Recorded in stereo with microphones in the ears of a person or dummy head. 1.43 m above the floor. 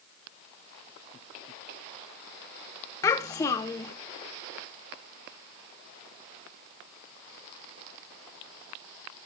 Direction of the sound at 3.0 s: 15° left (ahead or behind).